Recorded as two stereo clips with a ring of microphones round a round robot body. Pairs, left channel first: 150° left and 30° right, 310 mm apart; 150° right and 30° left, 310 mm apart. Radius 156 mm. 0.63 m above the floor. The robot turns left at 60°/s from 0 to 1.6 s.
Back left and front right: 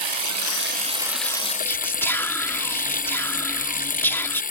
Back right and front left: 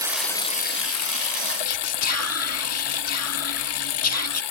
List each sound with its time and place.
0.0 s running water: 50° right; by 4.5 s 145° right
1.6 s whispering: 130° right